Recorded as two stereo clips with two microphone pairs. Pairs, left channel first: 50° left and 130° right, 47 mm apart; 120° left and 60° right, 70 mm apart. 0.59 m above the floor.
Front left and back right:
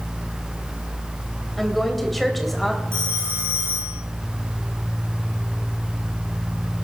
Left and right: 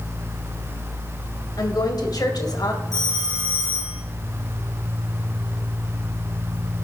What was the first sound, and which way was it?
A woman speaking, 135° left.